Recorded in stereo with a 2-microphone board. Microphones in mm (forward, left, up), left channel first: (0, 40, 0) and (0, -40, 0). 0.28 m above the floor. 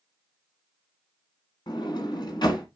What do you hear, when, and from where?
1.7 s a sliding door: 65° left (ahead or behind), 1.5 m